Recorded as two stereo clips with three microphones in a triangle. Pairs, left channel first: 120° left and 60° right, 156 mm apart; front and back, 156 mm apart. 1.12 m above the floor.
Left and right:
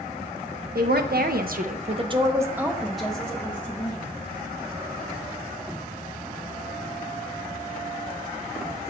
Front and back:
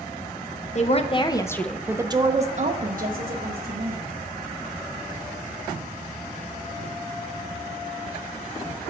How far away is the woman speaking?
About 0.8 m.